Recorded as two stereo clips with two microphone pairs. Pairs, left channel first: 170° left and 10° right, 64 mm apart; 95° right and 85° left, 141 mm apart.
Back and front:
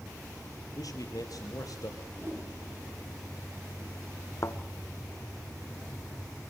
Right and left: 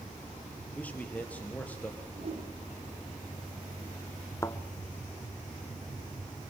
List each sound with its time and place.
0.8 s a man speaking: 175° right, 3.5 m
2.2 s a whoosh: 45° left, 6.5 m
4.4 s a thud: 160° right, 1.3 m